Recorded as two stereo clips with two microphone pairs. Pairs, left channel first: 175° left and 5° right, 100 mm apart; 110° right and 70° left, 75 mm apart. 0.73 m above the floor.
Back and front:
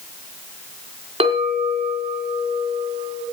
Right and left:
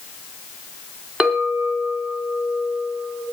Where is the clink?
10° right, 4 m.